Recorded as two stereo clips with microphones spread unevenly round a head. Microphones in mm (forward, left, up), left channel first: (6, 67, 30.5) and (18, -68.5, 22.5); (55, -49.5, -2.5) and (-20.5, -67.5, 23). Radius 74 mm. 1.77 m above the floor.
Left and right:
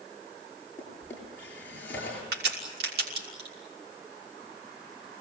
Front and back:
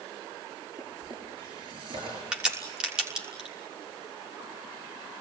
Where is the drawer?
175° left, 8 m.